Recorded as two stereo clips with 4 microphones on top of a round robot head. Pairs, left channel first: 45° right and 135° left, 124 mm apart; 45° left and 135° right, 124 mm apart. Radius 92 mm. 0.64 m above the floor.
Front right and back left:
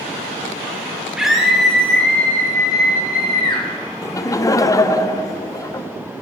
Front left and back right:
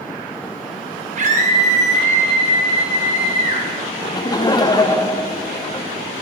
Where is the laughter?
5° left, 0.8 m.